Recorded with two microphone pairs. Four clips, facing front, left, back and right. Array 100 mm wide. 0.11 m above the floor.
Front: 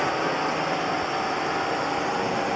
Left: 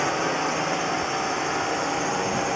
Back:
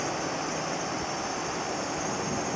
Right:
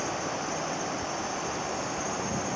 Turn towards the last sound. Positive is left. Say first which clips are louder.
# left 8 dB, front 7 dB
turn(degrees=45)